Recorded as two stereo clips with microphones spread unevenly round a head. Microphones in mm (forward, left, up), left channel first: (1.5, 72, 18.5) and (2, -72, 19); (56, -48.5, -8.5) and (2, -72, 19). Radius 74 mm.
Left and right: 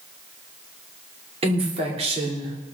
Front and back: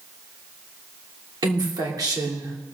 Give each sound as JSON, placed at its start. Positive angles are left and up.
{"t": 1.4, "sound": "a woman speaking", "azimuth_deg": -140, "distance_m": 3.0}